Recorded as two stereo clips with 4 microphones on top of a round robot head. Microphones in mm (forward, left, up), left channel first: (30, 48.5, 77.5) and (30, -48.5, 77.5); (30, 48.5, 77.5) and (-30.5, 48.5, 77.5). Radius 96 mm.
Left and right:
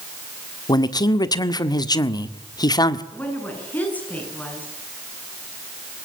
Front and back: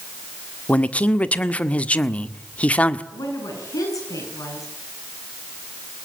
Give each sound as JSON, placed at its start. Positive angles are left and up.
{"t": 0.7, "sound": "a man speaking", "azimuth_deg": 60, "distance_m": 1.5}
{"t": 3.1, "sound": "a woman speaking", "azimuth_deg": 15, "distance_m": 8.0}